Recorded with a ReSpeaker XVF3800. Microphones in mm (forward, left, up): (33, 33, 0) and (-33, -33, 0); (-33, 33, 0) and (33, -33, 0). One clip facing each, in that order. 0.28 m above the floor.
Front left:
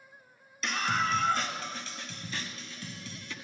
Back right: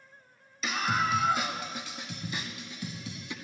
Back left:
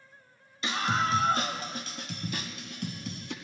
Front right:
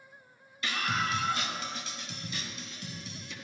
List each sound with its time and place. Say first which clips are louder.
0.6 s a scream: back right 1 dB, back left 4 dB; 145° left, 0.9 m; by 3.3 s 155° left, 1.9 m